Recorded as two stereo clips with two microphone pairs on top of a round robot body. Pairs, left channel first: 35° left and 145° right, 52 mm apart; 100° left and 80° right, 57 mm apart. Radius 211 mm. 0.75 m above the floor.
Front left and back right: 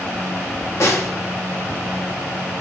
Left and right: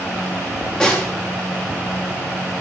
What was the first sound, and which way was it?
A snare drum, 30° left.